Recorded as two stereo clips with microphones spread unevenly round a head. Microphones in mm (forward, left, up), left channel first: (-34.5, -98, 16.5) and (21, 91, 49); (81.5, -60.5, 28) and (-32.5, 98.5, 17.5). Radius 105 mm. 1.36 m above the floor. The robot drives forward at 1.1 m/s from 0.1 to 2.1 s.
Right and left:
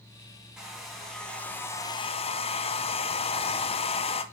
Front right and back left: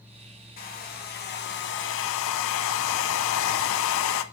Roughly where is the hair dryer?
Ahead.